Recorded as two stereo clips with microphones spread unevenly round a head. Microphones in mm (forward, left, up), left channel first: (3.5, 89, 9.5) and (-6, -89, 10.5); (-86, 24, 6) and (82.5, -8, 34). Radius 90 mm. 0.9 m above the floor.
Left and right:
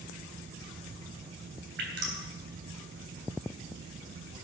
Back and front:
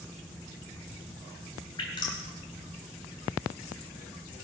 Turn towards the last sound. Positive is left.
turn(degrees=-125)